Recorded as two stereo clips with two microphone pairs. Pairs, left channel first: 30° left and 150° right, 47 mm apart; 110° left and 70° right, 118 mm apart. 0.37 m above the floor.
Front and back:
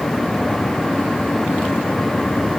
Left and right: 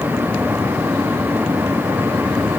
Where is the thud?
No thud in this recording.